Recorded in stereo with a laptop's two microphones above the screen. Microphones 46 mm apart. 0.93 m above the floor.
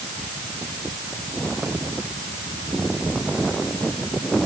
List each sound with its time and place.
Only background noise.